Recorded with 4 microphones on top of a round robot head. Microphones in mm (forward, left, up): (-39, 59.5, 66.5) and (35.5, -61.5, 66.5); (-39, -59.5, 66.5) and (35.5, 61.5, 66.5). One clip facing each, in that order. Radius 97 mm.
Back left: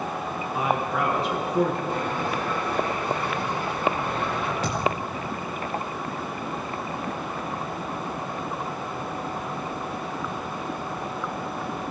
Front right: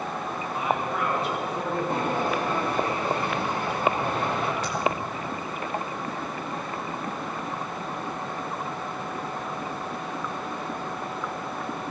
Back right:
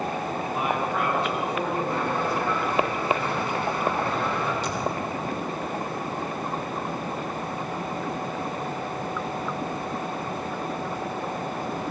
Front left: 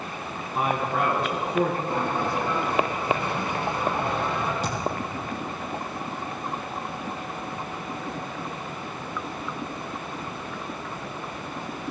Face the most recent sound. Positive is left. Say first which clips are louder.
# back left 1 dB, back right 1 dB
turn(degrees=105)